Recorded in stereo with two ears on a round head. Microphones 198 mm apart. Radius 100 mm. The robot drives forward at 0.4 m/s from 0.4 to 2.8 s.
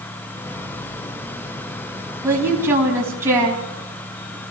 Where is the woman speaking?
10° right (ahead or behind), 3.5 m.